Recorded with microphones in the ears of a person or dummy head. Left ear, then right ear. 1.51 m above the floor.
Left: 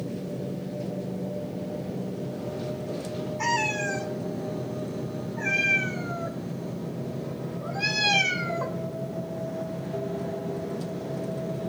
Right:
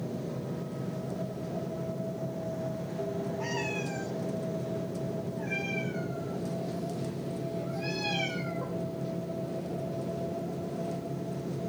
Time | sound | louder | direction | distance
3.4 | a cat meowing | left 11 dB | 60° left (ahead or behind) | 5.5 m